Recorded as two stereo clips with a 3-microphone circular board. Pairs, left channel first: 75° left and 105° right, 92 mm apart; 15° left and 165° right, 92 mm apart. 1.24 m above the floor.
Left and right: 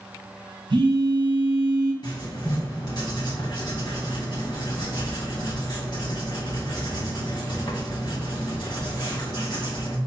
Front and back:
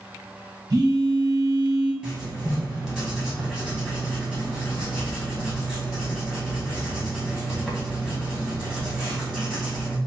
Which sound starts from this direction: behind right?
A phone buzzing, at 0.7 s.